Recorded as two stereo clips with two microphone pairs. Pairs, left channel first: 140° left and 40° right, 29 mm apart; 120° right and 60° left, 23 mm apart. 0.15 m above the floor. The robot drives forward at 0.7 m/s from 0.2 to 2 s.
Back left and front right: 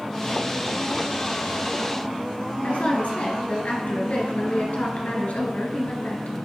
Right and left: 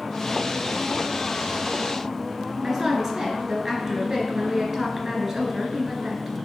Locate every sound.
2.6 s a woman speaking: 130° left, 2 m